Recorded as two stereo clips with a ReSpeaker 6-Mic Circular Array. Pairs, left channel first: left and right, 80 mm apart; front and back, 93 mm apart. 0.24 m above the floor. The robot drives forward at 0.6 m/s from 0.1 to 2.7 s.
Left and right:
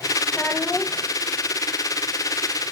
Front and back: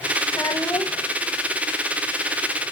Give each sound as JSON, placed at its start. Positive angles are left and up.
{"t": 0.3, "sound": "a child speaking", "azimuth_deg": 25, "distance_m": 0.8}